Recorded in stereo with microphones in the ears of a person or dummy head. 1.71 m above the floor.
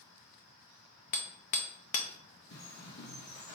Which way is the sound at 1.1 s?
40° left (ahead or behind).